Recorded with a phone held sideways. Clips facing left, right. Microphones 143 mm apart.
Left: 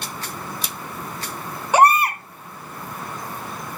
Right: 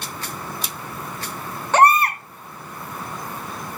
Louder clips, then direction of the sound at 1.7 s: Even; 10° left (ahead or behind).